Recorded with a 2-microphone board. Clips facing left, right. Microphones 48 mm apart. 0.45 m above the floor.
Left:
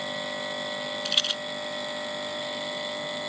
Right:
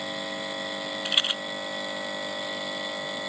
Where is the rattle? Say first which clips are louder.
Right 2 dB; 20° right (ahead or behind).